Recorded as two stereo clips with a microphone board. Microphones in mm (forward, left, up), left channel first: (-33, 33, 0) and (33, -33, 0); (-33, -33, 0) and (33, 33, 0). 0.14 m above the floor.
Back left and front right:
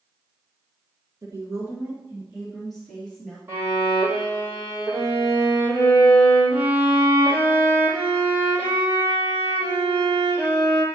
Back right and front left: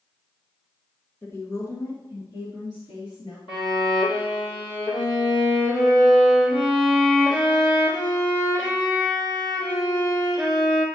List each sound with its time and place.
1.2 s a woman speaking: 80° right, 1.8 m; by 3.4 s 150° right, 2.5 m
3.5 s a violin: 110° right, 3 m